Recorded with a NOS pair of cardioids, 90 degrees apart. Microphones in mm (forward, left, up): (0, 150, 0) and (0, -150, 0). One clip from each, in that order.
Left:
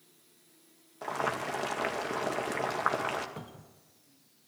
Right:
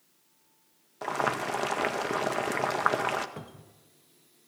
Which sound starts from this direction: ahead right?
Boiling, at 1.0 s.